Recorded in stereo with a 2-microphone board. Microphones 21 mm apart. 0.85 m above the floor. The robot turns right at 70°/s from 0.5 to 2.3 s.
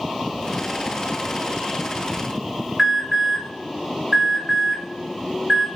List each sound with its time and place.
2.8 s an alarm: 20° right (ahead or behind), 2 m